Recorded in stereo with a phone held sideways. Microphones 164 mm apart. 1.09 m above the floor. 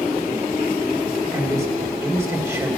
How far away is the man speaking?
About 4 m.